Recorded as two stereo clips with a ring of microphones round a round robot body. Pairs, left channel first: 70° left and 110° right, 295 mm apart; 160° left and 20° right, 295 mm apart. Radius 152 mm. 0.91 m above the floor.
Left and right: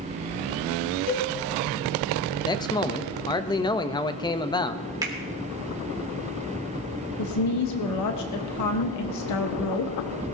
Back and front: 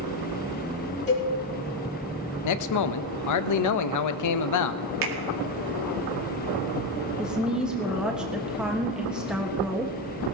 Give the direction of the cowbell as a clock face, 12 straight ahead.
9 o'clock.